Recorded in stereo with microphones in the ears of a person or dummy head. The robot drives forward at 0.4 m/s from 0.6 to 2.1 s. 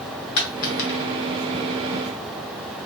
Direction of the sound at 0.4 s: 55° left (ahead or behind).